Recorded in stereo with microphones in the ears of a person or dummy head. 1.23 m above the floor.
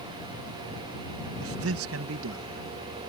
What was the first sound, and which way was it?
A man speaking, 75° right (ahead or behind).